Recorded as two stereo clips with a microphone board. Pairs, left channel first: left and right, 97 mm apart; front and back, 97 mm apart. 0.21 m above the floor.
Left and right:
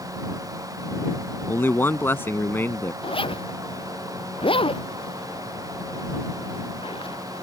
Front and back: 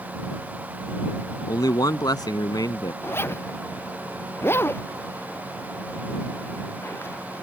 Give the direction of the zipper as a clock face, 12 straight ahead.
10 o'clock.